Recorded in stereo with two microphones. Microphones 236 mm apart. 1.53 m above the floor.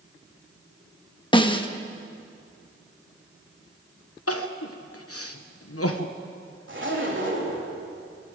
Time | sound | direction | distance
1.3 | a snare drum | 20° left (ahead or behind) | 1.1 m
4.3 | crying | 70° left (ahead or behind) | 1.2 m
6.7 | a zipper | 55° right (ahead or behind) | 3.5 m